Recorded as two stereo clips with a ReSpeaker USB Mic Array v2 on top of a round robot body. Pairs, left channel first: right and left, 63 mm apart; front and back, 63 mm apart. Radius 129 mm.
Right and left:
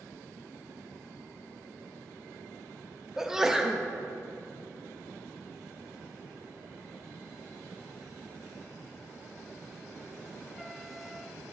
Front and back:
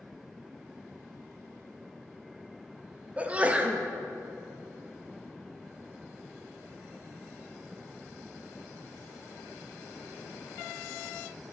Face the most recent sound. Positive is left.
turn(degrees=160)